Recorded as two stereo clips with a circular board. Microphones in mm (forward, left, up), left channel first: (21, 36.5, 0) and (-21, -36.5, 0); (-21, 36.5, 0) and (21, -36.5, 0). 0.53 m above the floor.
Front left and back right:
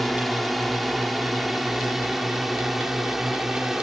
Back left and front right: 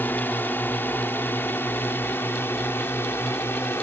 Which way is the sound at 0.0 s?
145° left.